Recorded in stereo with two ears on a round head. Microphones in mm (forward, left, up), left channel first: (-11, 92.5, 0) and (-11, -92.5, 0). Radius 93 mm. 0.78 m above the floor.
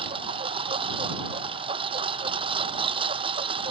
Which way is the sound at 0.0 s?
30° right (ahead or behind).